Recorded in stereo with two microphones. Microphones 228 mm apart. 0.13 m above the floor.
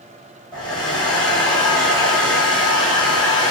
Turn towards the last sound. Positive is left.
turn(degrees=15)  # may be behind; listen again after turning